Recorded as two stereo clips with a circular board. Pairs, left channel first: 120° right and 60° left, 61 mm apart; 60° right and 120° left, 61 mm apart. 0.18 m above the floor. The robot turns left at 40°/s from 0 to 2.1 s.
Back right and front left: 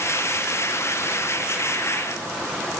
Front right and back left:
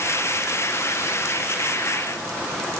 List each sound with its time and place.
Only background noise.